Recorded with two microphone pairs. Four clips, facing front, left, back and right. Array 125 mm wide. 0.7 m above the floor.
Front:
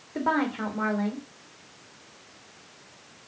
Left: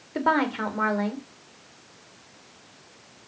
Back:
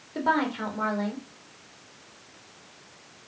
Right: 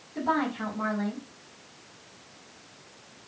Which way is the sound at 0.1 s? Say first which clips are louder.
Left 4 dB, back 1 dB; 90° left.